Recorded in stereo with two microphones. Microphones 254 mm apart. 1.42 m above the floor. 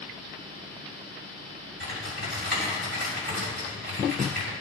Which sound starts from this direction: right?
Typing on a keyboard, at 1.8 s.